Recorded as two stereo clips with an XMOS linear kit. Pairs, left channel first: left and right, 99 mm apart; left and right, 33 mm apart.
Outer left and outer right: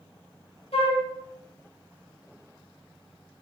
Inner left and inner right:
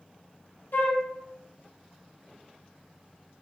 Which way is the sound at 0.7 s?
80° left.